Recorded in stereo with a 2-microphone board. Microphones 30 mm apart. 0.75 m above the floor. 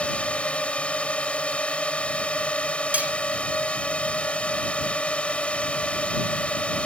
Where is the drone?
45° left (ahead or behind).